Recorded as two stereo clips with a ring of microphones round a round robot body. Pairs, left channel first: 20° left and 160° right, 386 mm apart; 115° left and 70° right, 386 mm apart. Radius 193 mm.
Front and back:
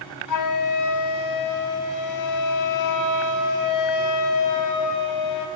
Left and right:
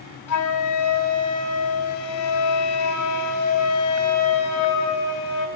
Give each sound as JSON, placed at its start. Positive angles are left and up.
{"t": 0.3, "sound": "a flute", "azimuth_deg": 65, "distance_m": 4.0}